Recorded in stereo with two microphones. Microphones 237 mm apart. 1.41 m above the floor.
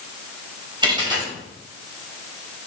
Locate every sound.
0.8 s a dropped coin: 20° right (ahead or behind), 3.5 m